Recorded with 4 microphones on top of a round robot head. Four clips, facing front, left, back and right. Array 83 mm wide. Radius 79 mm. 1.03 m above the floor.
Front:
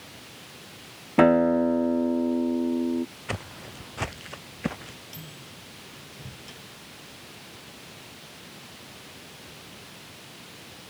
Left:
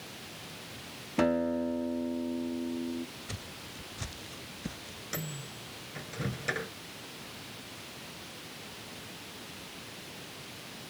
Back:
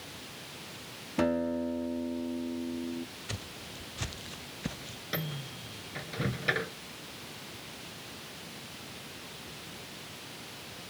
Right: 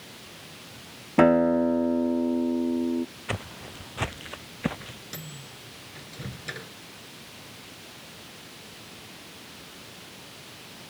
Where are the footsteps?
50° right; by 5.0 s 55° right.